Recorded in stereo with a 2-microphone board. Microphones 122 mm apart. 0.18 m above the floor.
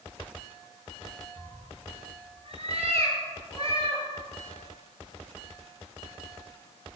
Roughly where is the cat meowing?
Right.